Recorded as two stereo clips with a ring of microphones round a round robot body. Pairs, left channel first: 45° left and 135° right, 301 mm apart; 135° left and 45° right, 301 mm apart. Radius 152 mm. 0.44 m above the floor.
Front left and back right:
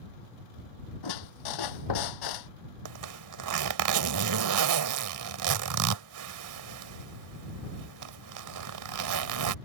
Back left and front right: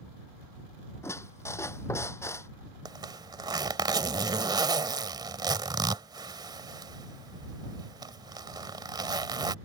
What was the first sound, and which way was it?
A squeak, 55° left.